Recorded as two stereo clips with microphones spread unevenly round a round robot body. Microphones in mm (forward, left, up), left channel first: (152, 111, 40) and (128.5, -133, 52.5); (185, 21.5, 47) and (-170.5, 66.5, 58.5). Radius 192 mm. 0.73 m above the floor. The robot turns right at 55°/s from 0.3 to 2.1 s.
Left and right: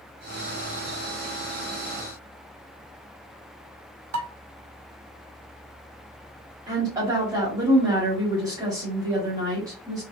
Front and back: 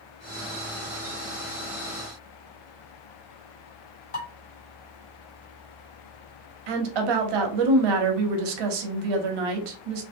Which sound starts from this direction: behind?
A woman speaking, at 6.7 s.